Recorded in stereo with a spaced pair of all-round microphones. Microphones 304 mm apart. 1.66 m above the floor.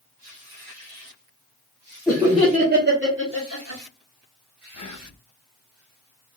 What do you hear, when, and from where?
2.1 s laughter: centre (ahead or behind), 0.9 m; by 3.8 s 60° right (ahead or behind), 1.5 m
4.7 s whispering: 80° left, 0.6 m